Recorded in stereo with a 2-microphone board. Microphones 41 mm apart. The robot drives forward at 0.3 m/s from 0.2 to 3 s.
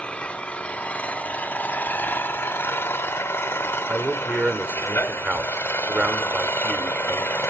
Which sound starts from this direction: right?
A man speaking, at 3.9 s.